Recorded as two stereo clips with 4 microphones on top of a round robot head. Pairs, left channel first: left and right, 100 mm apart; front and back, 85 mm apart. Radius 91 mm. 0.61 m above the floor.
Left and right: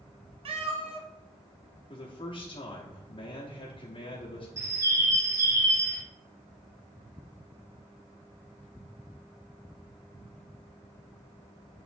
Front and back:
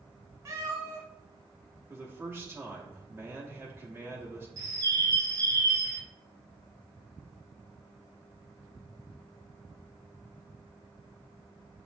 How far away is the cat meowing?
About 0.9 m.